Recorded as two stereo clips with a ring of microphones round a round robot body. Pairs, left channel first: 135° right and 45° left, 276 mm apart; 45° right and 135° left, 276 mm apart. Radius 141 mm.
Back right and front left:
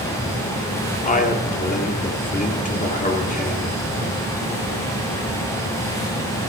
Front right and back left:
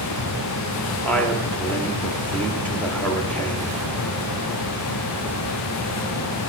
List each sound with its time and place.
1.0 s a man speaking: 125° right, 1.4 m